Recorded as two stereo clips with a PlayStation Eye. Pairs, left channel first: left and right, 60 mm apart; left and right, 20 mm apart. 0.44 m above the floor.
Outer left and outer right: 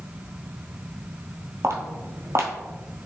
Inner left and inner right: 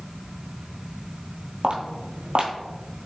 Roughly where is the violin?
I don't hear a violin.